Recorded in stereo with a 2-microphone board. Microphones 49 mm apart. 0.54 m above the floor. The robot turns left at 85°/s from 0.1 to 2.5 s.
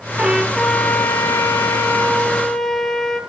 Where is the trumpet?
155° right, 2.5 m; by 3.2 s 5° left, 2.5 m.